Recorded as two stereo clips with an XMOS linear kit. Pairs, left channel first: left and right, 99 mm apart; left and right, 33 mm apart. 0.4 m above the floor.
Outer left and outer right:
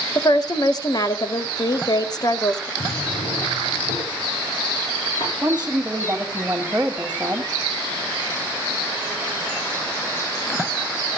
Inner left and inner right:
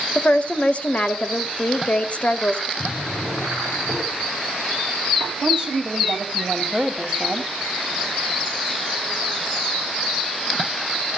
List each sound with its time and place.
0.1 s a woman speaking: 45° left (ahead or behind), 1.8 m
2.8 s a drawer: 65° left (ahead or behind), 7.5 m
5.4 s a woman speaking: 15° right (ahead or behind), 1.8 m